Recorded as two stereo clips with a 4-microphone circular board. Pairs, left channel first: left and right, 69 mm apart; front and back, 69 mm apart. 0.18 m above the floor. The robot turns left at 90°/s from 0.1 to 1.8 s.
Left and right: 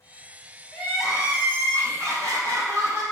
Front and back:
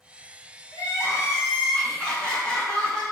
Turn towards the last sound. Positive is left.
turn(degrees=-75)